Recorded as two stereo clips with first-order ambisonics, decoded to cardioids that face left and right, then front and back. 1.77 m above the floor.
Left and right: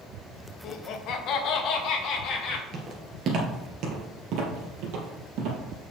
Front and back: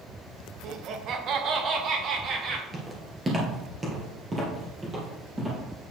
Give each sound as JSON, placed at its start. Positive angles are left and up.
{"t": 0.6, "sound": "laughter", "azimuth_deg": 130, "distance_m": 0.9}
{"t": 2.7, "sound": "footsteps", "azimuth_deg": -110, "distance_m": 1.9}